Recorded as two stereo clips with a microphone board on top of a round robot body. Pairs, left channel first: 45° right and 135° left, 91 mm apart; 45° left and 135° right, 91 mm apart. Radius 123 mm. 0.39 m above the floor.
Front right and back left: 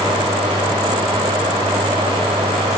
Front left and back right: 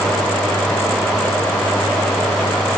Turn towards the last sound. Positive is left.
No sound to turn to.